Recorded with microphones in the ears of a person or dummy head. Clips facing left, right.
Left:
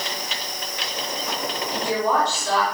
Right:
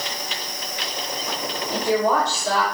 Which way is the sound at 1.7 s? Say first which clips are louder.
Right 3 dB; 40° right (ahead or behind).